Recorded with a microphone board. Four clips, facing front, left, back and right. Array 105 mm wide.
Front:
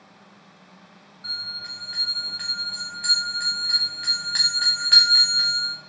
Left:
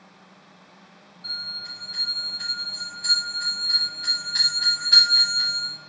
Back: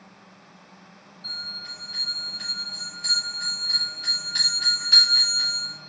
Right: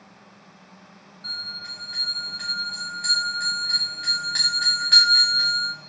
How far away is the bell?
About 3 m.